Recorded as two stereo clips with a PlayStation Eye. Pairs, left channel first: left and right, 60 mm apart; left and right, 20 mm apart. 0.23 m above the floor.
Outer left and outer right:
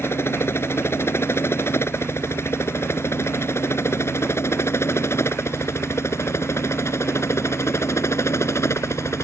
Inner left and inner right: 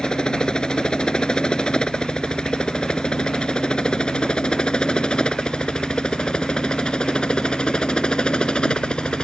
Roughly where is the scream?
No scream in this recording.